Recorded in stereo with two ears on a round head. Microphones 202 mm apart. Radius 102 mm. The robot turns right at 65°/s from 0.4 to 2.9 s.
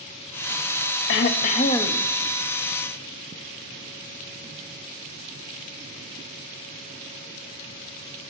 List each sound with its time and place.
1.1 s throat clearing: 115° left, 0.6 m; by 2.1 s 175° left, 0.6 m